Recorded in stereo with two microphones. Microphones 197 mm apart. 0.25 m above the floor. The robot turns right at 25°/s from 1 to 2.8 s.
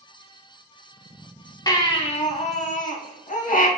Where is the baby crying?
20° left (ahead or behind), 0.5 m; by 3.7 s 40° left (ahead or behind), 0.5 m.